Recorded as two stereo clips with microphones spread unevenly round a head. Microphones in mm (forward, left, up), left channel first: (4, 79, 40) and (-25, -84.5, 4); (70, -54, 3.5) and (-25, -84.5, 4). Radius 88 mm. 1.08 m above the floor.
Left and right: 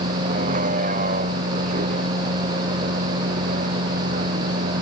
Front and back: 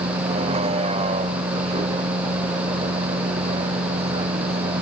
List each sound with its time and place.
0.0 s a vehicle: 145° right